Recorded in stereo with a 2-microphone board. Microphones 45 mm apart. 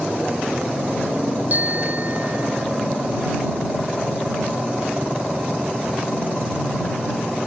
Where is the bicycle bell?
40° right (ahead or behind).